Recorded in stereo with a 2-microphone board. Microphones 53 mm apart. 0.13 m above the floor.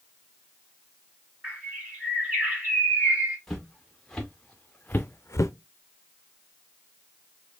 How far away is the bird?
About 1.8 m.